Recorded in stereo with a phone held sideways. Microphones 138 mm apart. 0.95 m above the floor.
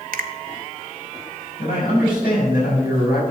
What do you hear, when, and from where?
0.1 s a finger snap: 75° right (ahead or behind), 0.7 m
1.6 s a man speaking: 90° left, 5 m